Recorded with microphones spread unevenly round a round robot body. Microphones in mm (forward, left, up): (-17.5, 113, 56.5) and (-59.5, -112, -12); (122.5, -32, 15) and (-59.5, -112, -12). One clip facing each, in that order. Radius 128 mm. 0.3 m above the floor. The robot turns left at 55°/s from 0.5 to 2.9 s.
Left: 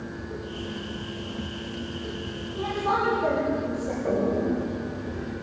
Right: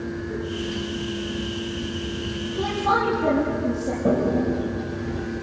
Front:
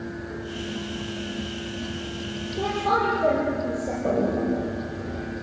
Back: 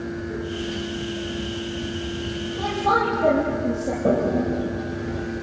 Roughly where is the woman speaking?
Ahead right.